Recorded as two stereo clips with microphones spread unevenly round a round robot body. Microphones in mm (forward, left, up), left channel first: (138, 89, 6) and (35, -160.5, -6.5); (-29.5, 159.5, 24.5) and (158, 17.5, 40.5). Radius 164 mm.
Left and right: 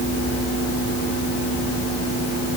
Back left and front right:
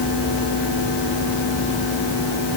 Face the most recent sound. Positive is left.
No sound to turn to.